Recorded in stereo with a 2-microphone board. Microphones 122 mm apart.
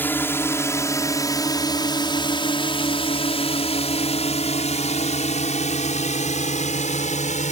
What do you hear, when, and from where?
0.0 s a drone: 15° left (ahead or behind); by 7.5 s 80° left